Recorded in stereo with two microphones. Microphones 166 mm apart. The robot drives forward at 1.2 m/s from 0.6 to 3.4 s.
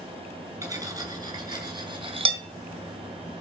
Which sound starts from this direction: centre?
Cutlery clinking, at 0.6 s.